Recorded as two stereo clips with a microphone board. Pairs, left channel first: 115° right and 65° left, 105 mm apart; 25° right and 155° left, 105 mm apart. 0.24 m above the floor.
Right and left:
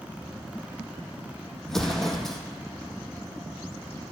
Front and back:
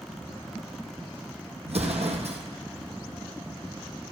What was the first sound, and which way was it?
An explosion, 160° left.